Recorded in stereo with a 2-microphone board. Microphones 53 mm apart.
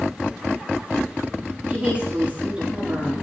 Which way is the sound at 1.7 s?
25° right (ahead or behind).